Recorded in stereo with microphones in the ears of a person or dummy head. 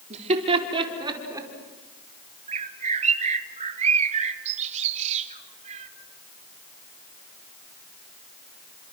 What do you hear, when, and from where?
0.1 s laughter: 40° right (ahead or behind), 4 m; by 1.5 s 20° right (ahead or behind), 5 m
2.5 s a bird: 35° right (ahead or behind), 1.6 m